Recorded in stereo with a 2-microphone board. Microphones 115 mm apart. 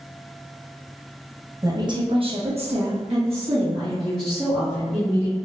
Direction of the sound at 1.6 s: 30° right (ahead or behind).